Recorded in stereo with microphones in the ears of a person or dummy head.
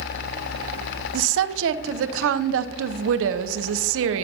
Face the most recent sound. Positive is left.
turn(degrees=-75)  # may be behind; listen again after turning